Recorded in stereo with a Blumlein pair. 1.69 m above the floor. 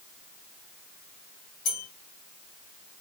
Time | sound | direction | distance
1.6 | a bell | 40° left | 1.1 m